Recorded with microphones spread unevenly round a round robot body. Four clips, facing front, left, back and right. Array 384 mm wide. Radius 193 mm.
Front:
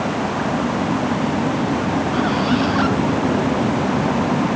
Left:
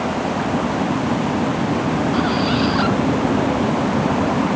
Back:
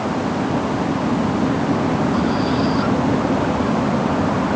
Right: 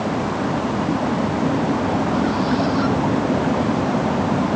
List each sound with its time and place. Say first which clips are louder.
2.1 s a squeak: left 1 dB, even; 35° left